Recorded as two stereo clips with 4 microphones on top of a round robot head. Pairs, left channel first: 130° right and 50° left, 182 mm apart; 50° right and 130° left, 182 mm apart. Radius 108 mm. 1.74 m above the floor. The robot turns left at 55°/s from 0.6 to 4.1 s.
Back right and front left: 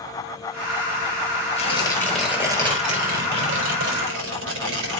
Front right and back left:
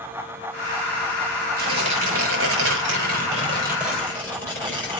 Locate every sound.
1.6 s tearing paper: 170° left, 5.5 m; by 5.0 s 35° left, 5.5 m